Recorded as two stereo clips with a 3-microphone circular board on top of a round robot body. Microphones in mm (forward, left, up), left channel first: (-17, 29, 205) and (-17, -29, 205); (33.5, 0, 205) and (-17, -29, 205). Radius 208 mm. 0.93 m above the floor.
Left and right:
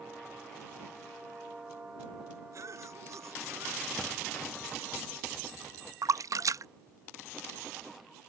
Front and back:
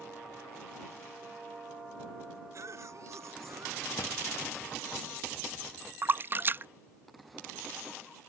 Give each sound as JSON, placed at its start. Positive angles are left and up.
{"t": 2.5, "sound": "a cough", "azimuth_deg": -120}
{"t": 4.0, "sound": "a drawer", "azimuth_deg": 10}
{"t": 6.0, "sound": "a splash", "azimuth_deg": -100}